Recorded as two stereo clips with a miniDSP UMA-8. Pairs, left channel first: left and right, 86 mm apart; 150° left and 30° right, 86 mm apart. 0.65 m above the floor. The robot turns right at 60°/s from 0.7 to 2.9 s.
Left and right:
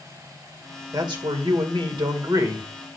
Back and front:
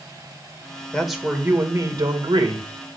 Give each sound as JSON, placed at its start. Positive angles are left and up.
{"t": 0.9, "sound": "a man speaking", "azimuth_deg": -130, "distance_m": 2.0}